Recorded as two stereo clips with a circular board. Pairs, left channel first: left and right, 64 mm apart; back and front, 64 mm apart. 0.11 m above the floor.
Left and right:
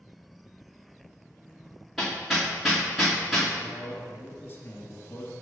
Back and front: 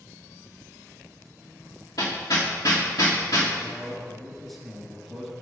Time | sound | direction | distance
2.0 | hammering | straight behind | 2.5 m
3.6 | a man speaking | 95° left | 1.6 m